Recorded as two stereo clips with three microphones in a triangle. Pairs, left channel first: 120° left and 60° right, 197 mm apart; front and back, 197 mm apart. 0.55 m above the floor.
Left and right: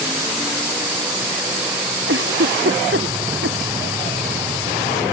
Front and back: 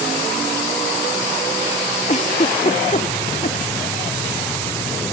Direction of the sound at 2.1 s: 55° right.